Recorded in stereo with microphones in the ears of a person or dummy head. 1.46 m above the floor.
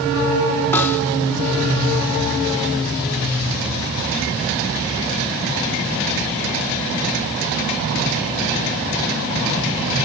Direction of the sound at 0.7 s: 10° left (ahead or behind).